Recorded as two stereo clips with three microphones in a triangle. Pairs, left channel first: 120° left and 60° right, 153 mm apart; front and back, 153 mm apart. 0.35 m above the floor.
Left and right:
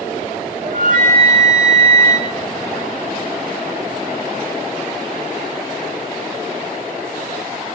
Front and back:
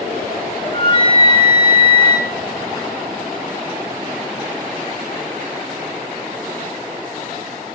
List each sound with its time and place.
0.6 s a flute: 50° right, 2.5 m